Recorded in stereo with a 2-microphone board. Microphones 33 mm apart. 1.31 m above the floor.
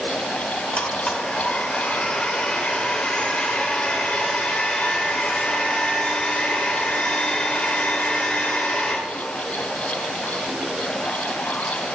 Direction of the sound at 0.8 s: 35° left (ahead or behind).